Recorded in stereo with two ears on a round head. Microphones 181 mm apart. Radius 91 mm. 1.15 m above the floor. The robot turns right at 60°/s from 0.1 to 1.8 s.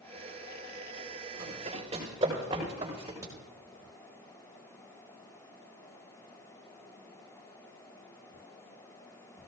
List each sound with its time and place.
1.4 s running footsteps: 50° right (ahead or behind), 6.5 m; by 3.1 s 15° right (ahead or behind), 7.5 m
3.2 s a crack: 15° right (ahead or behind), 4 m